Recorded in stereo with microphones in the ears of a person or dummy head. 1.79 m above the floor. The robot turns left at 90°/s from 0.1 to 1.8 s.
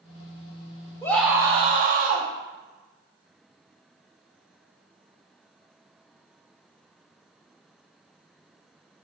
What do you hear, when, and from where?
1.0 s a scream: 15° left, 0.8 m; by 2.3 s 55° right, 0.8 m